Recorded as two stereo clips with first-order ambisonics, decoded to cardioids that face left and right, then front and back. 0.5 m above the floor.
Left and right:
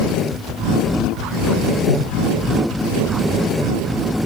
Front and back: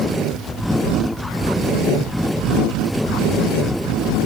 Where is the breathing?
70° left, 5 m.